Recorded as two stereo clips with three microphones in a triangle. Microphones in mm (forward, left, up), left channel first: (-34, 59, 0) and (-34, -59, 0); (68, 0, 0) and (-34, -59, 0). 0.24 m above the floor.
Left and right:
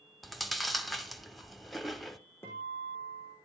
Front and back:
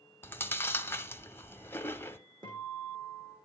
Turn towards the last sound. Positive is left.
turn(degrees=160)